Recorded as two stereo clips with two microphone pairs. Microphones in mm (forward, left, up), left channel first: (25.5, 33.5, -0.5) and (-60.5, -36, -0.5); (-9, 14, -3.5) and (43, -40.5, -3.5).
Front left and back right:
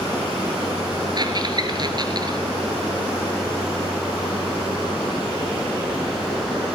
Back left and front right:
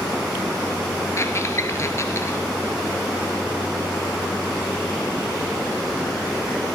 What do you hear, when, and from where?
1.2 s a squeak: 175° left, 1.7 m